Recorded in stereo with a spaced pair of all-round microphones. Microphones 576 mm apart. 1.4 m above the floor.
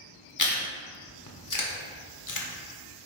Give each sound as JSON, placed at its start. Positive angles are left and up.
{"t": 0.4, "sound": "chewing", "side_deg": 35, "distance_m": 0.8}